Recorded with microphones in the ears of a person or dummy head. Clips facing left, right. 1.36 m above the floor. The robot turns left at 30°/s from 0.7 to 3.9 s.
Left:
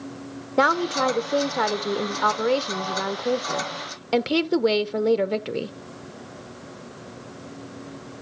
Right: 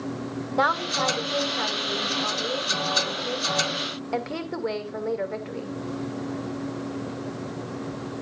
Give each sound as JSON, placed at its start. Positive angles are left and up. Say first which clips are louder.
{"t": 0.6, "sound": "a woman speaking", "louder": "left 5 dB", "azimuth_deg": 145, "distance_m": 0.9}